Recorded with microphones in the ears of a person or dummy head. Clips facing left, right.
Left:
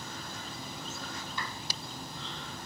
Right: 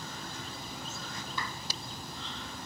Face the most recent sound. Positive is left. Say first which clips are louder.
# right 2 dB
turn(degrees=-85)